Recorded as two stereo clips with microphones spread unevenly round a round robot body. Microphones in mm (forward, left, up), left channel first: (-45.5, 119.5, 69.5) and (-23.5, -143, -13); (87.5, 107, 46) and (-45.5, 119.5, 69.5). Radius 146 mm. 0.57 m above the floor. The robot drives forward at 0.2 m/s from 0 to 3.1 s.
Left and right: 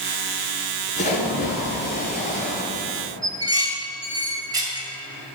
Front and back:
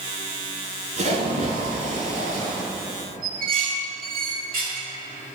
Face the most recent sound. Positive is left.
turn(degrees=-155)